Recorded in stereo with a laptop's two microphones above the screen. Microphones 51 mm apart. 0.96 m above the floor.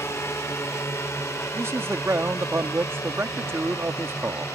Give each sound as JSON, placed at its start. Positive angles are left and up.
{"t": 0.0, "sound": "a drone", "side_deg": 65}
{"t": 1.5, "sound": "a man speaking", "side_deg": -60}